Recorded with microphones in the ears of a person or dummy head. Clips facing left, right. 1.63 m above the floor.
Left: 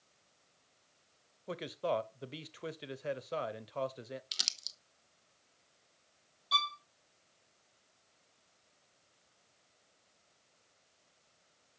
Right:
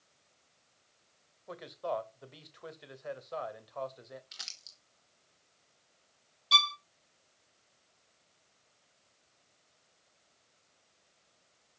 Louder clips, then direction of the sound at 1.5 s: Left 2 dB; 35° left (ahead or behind).